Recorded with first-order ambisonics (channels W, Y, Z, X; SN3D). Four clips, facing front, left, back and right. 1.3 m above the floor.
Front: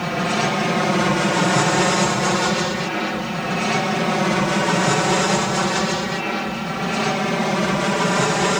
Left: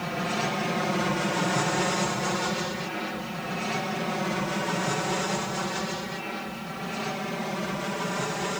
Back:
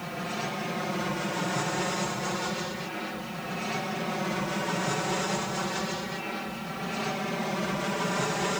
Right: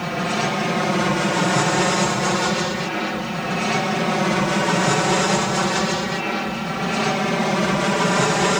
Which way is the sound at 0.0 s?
30° right.